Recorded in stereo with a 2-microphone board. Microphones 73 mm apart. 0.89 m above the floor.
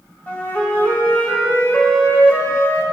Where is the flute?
25° left (ahead or behind), 1.2 m.